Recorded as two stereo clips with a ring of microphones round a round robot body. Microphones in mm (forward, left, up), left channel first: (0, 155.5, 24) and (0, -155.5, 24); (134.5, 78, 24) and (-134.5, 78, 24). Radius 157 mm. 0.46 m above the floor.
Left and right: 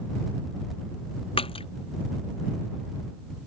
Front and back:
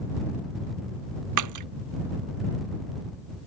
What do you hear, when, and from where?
1.4 s a splash: 165° left